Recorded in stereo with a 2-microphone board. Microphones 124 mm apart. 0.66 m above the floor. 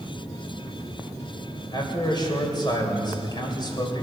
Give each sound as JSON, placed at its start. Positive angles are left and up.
{"t": 1.7, "sound": "a man speaking", "side_deg": 35, "distance_m": 2.5}